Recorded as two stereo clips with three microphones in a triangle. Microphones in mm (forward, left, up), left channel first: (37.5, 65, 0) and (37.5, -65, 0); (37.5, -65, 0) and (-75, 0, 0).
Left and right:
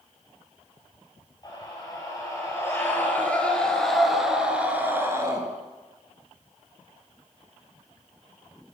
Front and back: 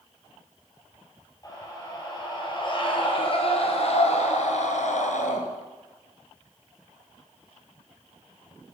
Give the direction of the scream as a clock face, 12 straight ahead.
11 o'clock.